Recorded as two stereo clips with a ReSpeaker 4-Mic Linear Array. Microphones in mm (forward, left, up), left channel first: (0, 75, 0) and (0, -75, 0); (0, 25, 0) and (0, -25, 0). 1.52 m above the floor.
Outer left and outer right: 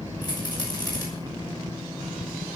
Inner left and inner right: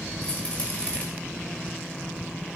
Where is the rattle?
25° left (ahead or behind), 7 m.